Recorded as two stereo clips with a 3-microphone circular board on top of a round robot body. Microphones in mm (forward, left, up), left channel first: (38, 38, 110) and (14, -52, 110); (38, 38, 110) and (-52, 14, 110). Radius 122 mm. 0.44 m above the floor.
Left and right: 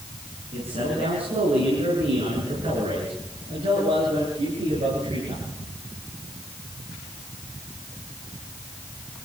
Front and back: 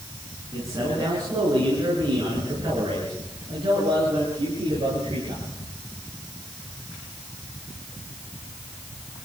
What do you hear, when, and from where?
0.5 s a man speaking: 110° right, 6 m; by 5.4 s 130° right, 10 m